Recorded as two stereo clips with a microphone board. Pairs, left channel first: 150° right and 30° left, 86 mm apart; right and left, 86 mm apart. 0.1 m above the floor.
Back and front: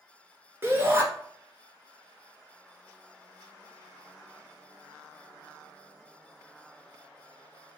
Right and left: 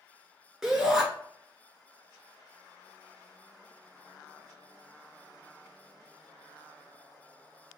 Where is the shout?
15° left, 1.2 m.